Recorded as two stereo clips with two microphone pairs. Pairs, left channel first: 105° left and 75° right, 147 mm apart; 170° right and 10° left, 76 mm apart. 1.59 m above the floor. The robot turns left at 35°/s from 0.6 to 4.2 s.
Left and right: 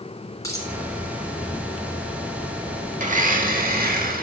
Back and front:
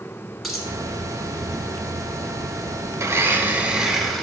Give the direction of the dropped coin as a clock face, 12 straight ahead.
9 o'clock.